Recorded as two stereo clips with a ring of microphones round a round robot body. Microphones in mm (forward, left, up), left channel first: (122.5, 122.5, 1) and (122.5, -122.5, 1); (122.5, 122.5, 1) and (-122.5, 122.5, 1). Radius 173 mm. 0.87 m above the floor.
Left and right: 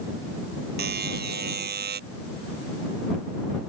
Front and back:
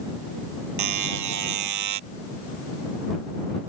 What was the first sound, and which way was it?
A buzzer, 155° right.